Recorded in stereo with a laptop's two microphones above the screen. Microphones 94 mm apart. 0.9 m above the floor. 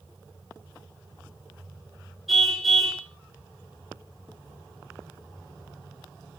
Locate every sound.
2.3 s a car horn: centre (ahead or behind), 7.5 m